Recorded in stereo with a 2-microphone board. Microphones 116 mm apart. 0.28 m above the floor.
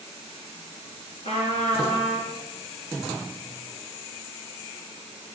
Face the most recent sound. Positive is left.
turn(degrees=60)  # may be behind; listen again after turning